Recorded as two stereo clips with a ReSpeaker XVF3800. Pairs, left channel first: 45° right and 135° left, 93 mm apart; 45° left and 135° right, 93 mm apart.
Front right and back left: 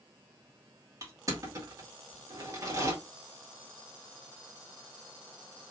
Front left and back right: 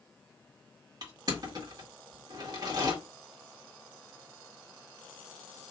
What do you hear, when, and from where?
1.0 s crushing: 175° right, 1.8 m